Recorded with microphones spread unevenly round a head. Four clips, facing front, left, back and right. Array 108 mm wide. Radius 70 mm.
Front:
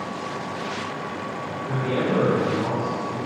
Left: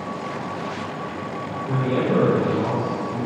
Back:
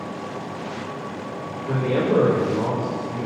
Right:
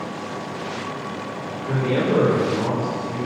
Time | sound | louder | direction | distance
1.7 | a man speaking | right 1 dB, back 3 dB | straight behind | 3 m